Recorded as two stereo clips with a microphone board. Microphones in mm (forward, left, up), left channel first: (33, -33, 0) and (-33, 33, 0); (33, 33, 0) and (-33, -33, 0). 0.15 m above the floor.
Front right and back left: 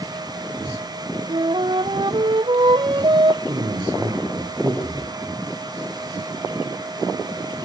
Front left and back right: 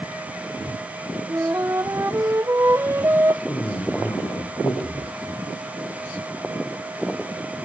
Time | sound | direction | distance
1.3 | a flute | 165° left | 0.8 m
3.5 | a man speaking | 105° left | 5.5 m